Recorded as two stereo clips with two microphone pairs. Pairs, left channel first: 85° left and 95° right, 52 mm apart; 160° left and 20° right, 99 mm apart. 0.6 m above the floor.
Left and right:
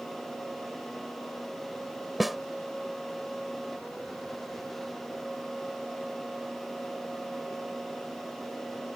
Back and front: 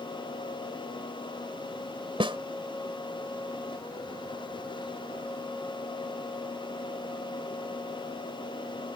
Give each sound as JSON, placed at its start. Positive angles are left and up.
{"t": 2.2, "sound": "a snare drum", "azimuth_deg": -5}